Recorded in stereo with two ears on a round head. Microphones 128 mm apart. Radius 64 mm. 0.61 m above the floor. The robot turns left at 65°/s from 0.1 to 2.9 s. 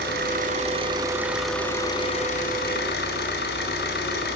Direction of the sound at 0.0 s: 90° right.